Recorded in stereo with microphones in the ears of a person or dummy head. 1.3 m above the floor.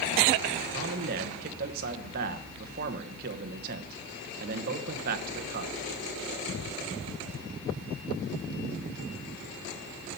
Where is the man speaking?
45° right (ahead or behind), 1.1 m.